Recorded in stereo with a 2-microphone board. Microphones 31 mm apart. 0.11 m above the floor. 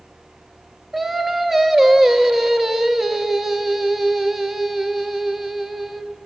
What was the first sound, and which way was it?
Singing, 10° right (ahead or behind).